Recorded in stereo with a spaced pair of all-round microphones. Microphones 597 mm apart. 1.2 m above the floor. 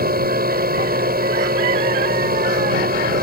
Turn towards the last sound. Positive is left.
turn(degrees=-15)  # may be behind; listen again after turning